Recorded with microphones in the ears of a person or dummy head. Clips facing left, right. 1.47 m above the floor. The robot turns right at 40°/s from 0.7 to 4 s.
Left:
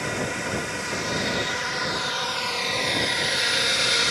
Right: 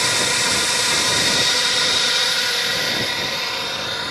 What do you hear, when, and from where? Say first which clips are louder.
0.0 s a drone: right 3 dB; 90° right; by 4.1 s 40° left